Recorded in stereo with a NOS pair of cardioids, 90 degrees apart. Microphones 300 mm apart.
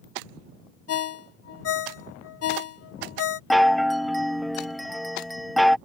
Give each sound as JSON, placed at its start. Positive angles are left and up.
{"t": 0.9, "sound": "a ringtone", "azimuth_deg": 55}
{"t": 3.5, "sound": "a chime", "azimuth_deg": 0}